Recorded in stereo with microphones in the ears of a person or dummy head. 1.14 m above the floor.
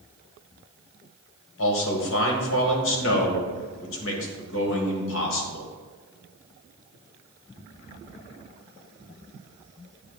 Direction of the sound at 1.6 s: 65° left (ahead or behind).